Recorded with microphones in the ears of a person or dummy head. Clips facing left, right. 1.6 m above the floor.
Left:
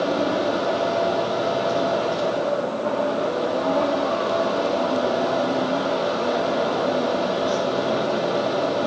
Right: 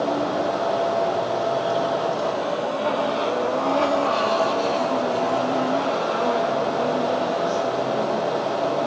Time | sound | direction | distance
0.0 | a fan | 40° left (ahead or behind) | 5 m